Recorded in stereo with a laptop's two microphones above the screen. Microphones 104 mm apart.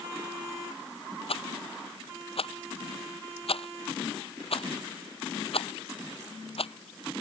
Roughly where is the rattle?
Left.